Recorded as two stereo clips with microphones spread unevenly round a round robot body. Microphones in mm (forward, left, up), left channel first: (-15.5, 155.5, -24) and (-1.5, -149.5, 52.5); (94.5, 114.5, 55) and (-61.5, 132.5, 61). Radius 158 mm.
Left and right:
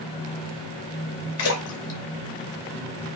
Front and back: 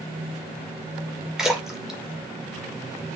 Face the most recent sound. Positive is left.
turn(degrees=85)